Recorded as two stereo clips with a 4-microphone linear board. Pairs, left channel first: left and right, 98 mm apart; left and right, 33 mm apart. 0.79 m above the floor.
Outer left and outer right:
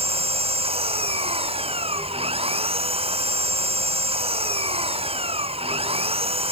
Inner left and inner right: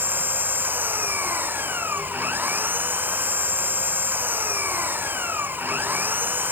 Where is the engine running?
85° right.